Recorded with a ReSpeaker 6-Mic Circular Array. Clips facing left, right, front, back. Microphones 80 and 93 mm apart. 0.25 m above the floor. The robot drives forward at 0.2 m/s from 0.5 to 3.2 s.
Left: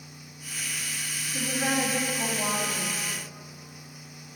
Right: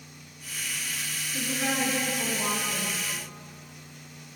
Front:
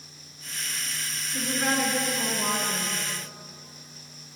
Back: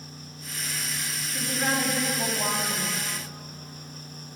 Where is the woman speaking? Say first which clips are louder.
Left 2 dB, front 1 dB; 110° left, 1.1 m; by 3.0 s 135° left, 1.2 m.